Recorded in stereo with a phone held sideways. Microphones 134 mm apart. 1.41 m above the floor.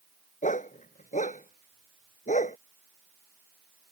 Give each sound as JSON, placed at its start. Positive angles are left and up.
{"t": 0.4, "sound": "a dog barking", "side_deg": 70}